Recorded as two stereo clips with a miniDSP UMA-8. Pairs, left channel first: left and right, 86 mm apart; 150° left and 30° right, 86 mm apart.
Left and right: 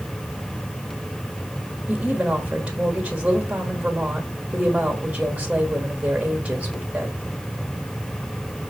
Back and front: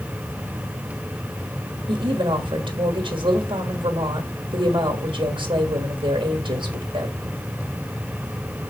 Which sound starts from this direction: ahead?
A woman speaking, at 1.9 s.